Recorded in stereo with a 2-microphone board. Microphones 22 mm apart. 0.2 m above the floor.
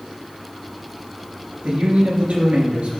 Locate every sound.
1.6 s a man speaking: 70° right (ahead or behind), 3 m